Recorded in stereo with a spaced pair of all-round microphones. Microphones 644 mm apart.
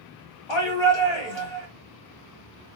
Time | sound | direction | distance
0.5 | a shout | 45° left (ahead or behind) | 1.6 m